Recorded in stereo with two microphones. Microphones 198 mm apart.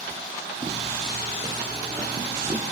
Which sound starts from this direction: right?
Footsteps, at 0.6 s.